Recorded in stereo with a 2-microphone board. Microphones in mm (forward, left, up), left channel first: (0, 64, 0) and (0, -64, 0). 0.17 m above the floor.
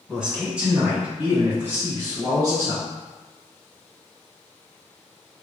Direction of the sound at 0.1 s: 5° right (ahead or behind).